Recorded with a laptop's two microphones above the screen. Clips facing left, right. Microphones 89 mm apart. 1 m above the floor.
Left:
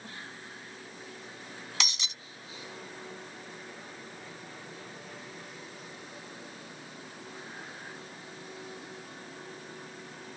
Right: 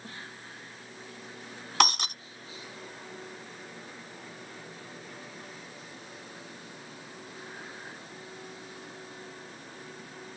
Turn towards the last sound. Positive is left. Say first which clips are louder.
# right 13 dB
turn(degrees=-55)  # may be behind; listen again after turning